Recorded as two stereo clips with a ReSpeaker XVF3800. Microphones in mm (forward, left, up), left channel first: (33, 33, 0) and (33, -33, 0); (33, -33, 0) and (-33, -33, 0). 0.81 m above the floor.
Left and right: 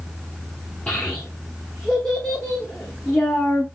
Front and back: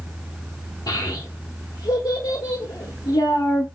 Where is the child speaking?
20° left, 1.1 m.